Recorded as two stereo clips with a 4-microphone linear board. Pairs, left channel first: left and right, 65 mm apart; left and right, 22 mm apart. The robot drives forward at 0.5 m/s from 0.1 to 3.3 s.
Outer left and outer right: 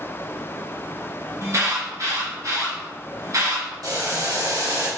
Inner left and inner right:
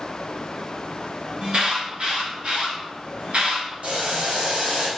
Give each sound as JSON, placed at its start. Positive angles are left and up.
{"t": 1.4, "sound": "an alarm", "side_deg": -50, "distance_m": 3.0}
{"t": 3.8, "sound": "boiling", "side_deg": -70, "distance_m": 3.5}